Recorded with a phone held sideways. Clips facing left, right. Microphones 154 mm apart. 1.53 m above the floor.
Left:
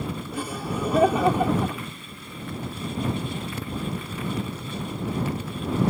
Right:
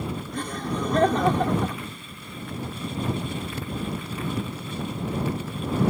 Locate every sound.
0.3 s laughter: 10° left (ahead or behind)